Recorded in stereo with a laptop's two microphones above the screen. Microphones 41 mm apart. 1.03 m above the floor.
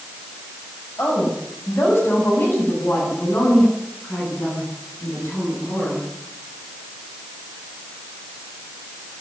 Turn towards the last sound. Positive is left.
turn(degrees=65)  # may be behind; listen again after turning